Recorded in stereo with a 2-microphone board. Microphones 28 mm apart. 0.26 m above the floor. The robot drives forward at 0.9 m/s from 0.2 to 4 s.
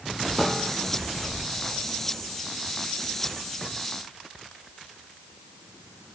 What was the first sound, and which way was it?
A piano, 10° right (ahead or behind).